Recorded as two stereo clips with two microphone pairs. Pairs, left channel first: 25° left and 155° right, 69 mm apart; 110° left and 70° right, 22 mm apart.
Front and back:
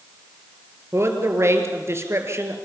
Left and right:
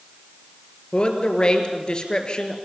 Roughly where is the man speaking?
Behind.